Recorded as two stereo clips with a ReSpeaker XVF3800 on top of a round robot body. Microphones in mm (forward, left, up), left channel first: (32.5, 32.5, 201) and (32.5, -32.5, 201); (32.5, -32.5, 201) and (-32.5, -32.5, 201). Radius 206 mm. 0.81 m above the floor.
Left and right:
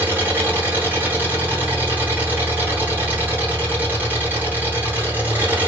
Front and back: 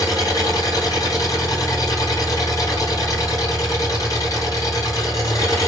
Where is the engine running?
30° right, 1.9 m.